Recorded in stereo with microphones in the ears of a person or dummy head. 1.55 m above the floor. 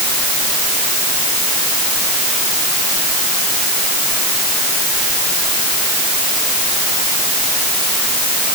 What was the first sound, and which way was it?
Only background noise.